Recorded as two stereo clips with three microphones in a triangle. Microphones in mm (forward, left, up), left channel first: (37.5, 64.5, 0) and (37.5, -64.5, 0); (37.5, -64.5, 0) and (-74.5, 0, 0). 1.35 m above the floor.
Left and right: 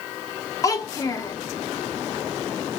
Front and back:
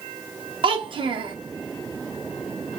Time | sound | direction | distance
0.6 | a child speaking | 140° left | 0.6 m